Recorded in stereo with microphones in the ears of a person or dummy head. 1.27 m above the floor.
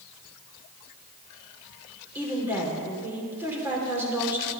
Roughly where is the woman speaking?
Centre.